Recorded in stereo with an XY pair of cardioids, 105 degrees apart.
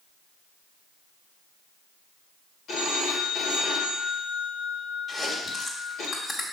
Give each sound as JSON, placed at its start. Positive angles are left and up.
{"t": 2.7, "sound": "a phone ringing", "azimuth_deg": 65, "distance_m": 1.8}
{"t": 5.1, "sound": "chewing", "azimuth_deg": 35, "distance_m": 1.8}